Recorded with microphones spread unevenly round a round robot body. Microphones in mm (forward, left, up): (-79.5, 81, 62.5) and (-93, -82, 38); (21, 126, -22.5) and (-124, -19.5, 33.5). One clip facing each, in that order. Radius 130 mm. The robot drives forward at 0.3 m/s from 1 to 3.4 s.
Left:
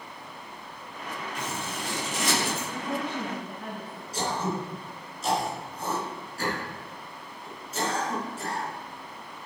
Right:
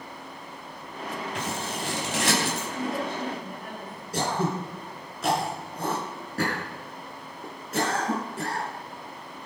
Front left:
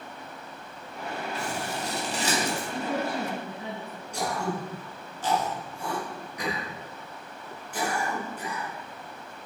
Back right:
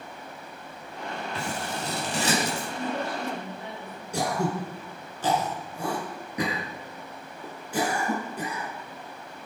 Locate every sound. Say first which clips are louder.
1.4 s scissors: right 1 dB, even; 110° right, 5 m; by 2.7 s 115° right, 5 m
2.7 s a woman speaking: right 1 dB, front left 1 dB; 35° left, 7.5 m
4.1 s throat clearing: right 2 dB, back right 3 dB; 125° right, 4 m